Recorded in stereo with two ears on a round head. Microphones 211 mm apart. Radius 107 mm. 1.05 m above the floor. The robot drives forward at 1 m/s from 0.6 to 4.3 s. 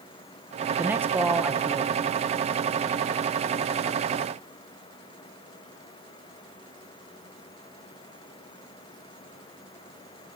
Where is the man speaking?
10° right (ahead or behind), 0.6 m; by 2.1 s 5° right (ahead or behind), 1.2 m.